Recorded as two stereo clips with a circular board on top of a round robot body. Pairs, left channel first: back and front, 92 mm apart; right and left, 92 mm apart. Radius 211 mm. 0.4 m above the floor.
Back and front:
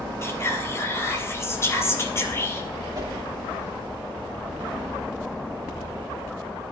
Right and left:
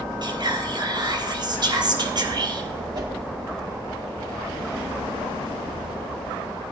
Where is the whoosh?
50° left, 3 m.